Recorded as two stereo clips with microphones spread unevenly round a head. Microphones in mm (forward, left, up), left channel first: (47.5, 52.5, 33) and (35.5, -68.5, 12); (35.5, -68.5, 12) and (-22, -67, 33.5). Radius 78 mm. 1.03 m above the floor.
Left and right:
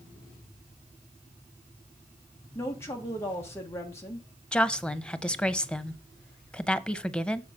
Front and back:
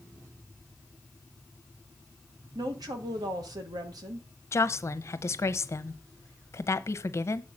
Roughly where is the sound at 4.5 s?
Ahead.